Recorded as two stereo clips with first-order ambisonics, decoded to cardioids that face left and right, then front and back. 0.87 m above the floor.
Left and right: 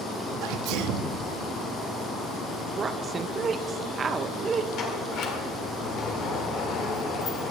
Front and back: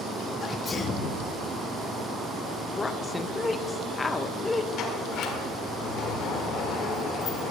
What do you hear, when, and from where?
0.4 s a sneeze: 70° right, 1.1 m
2.8 s a woman speaking: 50° right, 0.5 m
4.8 s a sliding door: 45° left, 1.8 m